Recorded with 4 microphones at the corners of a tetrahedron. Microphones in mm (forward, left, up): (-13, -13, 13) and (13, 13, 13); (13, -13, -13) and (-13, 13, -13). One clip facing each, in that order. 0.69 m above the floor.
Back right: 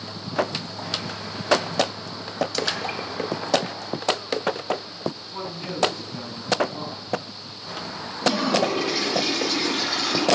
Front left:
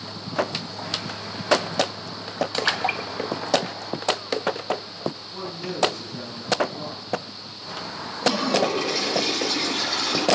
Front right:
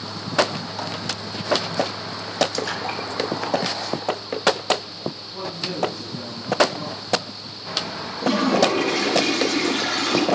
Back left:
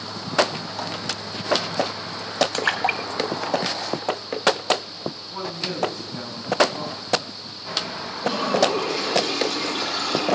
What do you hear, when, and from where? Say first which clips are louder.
2.5 s a splash: front left 3 dB, back left 4 dB; 95° left, 1.1 m
5.3 s a man speaking: even, back left 2 dB; 175° left, 6 m
8.2 s a toilet flushing: even, front right 2 dB; 55° right, 4.5 m